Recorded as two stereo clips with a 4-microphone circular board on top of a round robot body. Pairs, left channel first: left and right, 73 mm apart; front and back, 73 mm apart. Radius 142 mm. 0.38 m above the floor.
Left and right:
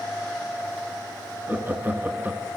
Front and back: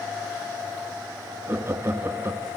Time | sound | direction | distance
1.5 | laughter | 140° right | 1.7 m